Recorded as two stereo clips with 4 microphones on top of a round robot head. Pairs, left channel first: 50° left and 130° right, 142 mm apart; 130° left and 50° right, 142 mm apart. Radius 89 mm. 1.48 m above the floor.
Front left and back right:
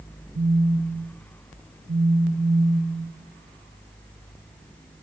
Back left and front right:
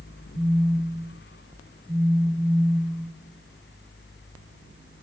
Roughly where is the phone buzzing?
Behind right.